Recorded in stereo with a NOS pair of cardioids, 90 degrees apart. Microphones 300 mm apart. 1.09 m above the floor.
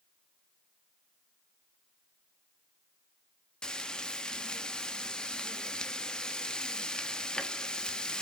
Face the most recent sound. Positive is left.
turn(degrees=5)